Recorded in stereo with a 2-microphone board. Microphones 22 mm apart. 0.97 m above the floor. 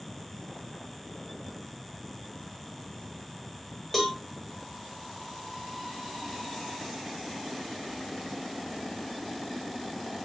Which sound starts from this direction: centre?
A cowbell, at 3.9 s.